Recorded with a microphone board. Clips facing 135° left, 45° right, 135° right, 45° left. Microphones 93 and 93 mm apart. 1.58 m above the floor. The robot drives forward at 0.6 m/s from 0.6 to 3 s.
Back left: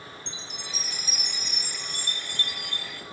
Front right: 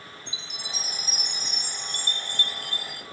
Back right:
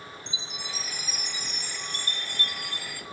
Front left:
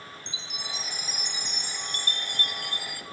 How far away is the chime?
About 2.5 m.